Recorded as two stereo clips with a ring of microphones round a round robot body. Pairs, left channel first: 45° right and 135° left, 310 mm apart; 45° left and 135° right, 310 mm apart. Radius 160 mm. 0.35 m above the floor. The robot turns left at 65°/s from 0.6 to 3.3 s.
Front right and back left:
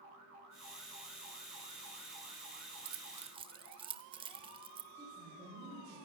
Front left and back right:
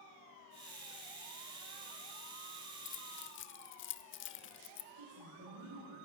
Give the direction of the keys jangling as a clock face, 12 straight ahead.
9 o'clock.